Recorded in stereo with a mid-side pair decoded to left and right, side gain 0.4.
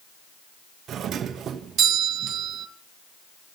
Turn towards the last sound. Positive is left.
turn(degrees=-70)